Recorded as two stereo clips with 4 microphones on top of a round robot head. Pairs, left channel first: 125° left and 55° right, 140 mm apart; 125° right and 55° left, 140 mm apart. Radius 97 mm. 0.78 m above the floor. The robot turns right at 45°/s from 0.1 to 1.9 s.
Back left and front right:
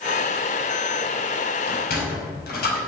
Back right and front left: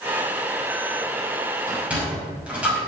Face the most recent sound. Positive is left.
turn(degrees=135)